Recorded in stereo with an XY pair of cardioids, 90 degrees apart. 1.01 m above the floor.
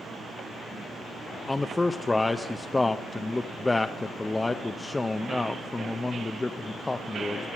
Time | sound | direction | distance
1.5 | a man speaking | 25° left | 0.5 m